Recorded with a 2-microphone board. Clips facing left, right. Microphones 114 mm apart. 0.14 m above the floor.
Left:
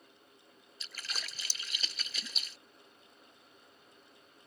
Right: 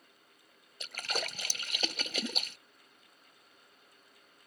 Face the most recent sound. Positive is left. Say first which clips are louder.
# right 9 dB
turn(degrees=-60)  # may be behind; listen again after turning